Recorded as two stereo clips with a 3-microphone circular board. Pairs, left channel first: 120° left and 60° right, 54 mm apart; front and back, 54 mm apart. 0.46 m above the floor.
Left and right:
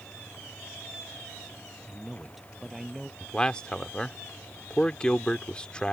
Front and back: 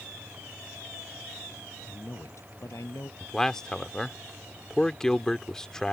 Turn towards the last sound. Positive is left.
turn(degrees=70)